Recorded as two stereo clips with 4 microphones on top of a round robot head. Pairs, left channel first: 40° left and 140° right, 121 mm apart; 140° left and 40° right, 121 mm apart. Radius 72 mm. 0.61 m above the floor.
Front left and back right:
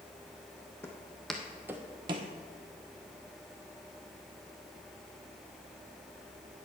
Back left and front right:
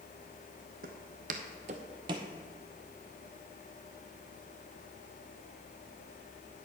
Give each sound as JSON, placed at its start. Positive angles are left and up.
{"t": 0.8, "sound": "footsteps", "azimuth_deg": -30, "distance_m": 1.2}